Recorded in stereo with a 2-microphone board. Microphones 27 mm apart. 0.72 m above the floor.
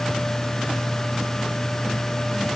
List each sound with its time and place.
Only background noise.